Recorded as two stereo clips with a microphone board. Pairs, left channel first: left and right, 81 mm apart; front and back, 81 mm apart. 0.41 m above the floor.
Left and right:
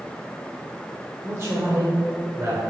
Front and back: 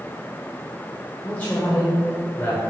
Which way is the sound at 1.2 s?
55° right.